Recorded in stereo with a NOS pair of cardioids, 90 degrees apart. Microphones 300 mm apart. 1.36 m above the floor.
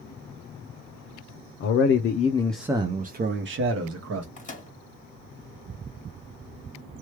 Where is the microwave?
25° left, 1.5 m.